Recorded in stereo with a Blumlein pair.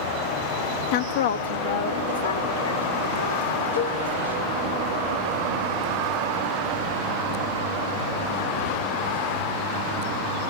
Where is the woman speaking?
40° left, 0.9 m; by 4.5 s 80° left, 5.5 m.